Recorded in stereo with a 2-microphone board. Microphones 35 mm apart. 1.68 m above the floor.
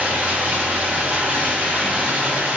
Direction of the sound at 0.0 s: 35° right (ahead or behind).